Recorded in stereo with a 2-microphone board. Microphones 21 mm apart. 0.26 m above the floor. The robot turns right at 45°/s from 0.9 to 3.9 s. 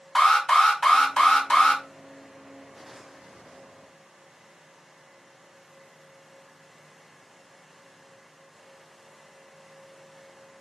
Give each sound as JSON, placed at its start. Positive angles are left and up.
{"t": 0.1, "sound": "an alarm", "azimuth_deg": 50, "distance_m": 1.3}